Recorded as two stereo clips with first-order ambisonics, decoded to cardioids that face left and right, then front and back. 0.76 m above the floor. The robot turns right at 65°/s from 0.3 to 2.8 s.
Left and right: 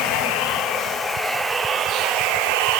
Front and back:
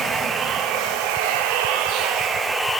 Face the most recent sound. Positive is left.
turn(degrees=-85)